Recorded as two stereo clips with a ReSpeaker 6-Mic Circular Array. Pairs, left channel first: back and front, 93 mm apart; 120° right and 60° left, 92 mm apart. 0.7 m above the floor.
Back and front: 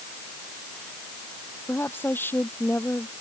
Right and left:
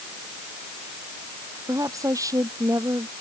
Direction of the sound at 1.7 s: 115° left.